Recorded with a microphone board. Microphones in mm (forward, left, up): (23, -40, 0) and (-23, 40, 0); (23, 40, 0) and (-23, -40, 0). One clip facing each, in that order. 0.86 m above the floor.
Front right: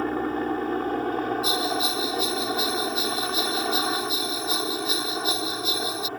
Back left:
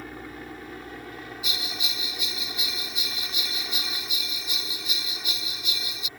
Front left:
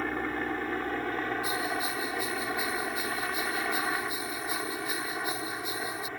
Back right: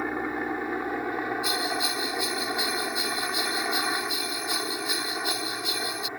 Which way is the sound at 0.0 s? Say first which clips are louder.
Front right 13 dB, back right 2 dB; 45° right.